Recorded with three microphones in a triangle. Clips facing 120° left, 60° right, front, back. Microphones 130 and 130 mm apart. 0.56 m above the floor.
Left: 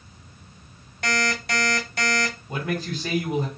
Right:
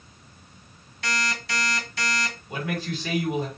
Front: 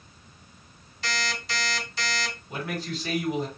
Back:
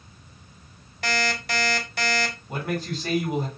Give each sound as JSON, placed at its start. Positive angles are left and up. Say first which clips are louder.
{"t": 1.0, "sound": "an alarm clock", "louder": "left 4 dB, back 6 dB", "azimuth_deg": 150, "distance_m": 1.3}
{"t": 2.5, "sound": "a man speaking", "louder": "right 1 dB, back 2 dB", "azimuth_deg": 150, "distance_m": 1.7}